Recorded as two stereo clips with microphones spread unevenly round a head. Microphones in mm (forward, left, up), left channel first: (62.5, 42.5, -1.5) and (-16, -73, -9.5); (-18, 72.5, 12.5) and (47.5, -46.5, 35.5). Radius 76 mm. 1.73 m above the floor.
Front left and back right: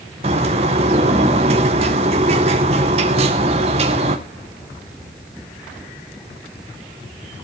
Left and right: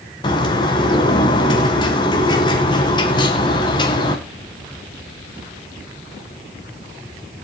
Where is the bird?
Straight behind, 1.8 m.